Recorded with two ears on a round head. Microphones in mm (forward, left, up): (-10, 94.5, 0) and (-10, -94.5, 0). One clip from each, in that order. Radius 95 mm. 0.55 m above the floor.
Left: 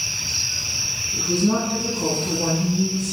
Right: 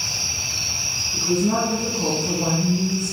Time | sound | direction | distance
1.1 | a woman speaking | 10° left (ahead or behind) | 4.5 m